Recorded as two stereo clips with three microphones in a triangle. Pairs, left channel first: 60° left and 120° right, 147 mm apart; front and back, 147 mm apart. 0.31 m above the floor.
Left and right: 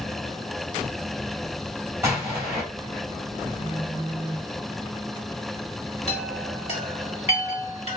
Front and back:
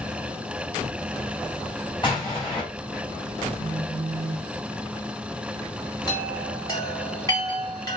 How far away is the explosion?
About 2.5 m.